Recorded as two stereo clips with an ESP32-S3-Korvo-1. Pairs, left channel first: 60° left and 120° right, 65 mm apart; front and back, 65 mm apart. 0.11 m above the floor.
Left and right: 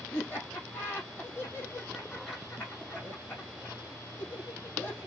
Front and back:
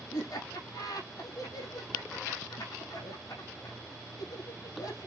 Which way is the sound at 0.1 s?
Straight ahead.